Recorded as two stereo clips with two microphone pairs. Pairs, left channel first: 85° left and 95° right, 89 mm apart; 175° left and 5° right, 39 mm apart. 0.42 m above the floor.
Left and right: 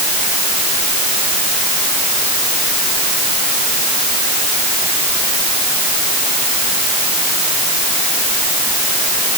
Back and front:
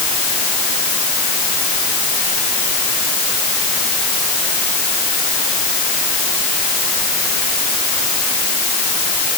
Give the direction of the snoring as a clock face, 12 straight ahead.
No snoring in this recording.